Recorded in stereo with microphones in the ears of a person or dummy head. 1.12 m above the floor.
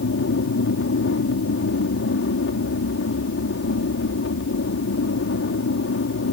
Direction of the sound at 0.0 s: 55° left (ahead or behind).